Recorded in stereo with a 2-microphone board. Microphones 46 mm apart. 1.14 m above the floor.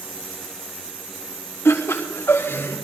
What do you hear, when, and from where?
1.6 s laughter: 65° left (ahead or behind), 2 m; by 2.8 s 50° left (ahead or behind), 2.5 m